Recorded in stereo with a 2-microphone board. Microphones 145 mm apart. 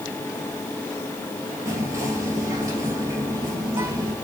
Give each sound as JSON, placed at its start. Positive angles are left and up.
{"t": 1.6, "sound": "whispering", "side_deg": -20, "distance_m": 2.0}